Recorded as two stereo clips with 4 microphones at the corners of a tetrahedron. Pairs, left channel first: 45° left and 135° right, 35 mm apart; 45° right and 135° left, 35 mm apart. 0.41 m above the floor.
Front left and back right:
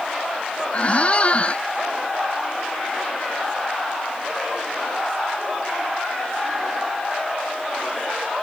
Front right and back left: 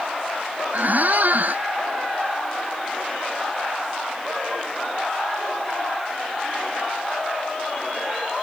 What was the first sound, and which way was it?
A squeak, 100° left.